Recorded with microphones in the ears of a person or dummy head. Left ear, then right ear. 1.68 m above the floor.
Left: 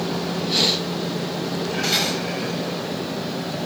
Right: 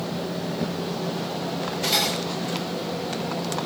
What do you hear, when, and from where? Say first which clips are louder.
1.8 s cutlery clinking: left 1 dB; 10° right (ahead or behind), 6 m